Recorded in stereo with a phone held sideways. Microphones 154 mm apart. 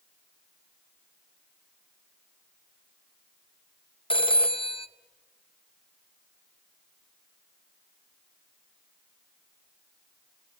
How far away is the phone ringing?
About 0.7 m.